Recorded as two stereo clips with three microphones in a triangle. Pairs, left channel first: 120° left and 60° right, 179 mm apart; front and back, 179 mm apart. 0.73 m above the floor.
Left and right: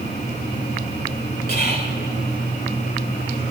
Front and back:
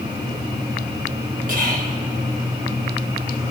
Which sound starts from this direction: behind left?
Whispering, at 1.5 s.